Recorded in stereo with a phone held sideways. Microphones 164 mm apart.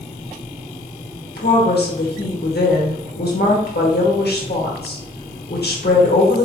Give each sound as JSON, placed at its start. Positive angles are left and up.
{"t": 1.4, "sound": "a woman speaking", "side_deg": 80, "distance_m": 1.4}